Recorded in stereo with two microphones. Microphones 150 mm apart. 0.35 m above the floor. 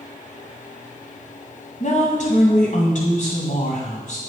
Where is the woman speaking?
60° left (ahead or behind), 1.9 m.